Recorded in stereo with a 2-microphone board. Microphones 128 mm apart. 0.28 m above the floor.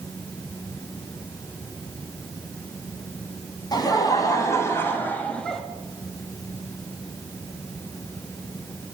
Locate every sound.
3.7 s laughter: 30° left (ahead or behind), 2.5 m; by 5.6 s 5° left (ahead or behind), 1.6 m